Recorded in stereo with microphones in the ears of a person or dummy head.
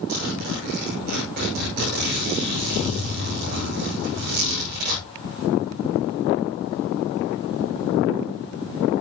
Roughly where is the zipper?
Right.